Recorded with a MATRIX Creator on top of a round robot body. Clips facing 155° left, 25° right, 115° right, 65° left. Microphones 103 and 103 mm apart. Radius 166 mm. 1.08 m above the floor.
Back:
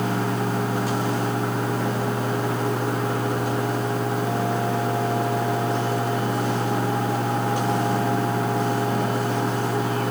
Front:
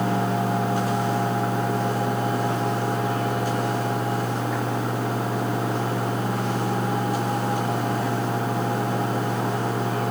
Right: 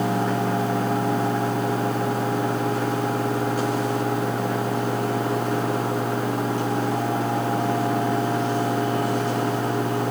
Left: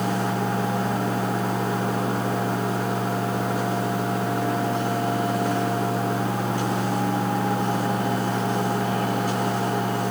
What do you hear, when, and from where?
Only background noise.